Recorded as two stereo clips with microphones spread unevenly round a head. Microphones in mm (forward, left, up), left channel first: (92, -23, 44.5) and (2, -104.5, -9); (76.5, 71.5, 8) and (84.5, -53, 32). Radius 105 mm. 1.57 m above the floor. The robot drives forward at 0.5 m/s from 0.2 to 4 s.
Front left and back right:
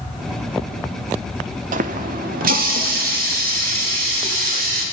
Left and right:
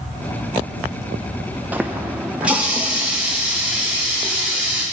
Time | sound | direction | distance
1.7 | a running tap | 145° right | 0.7 m